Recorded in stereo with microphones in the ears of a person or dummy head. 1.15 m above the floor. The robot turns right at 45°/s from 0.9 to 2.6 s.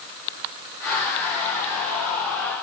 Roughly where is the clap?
No clap in this recording.